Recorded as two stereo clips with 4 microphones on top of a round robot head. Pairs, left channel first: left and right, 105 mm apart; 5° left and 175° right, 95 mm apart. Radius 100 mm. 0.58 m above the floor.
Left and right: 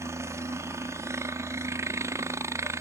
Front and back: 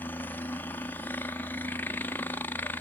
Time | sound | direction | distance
0.0 | a helicopter | 50° right | ?